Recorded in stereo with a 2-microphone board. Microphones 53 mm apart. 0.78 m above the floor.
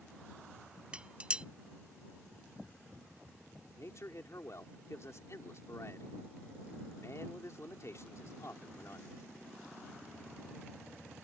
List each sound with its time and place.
0.9 s dishes clattering: 20° right (ahead or behind)
3.8 s a man speaking: 65° left (ahead or behind)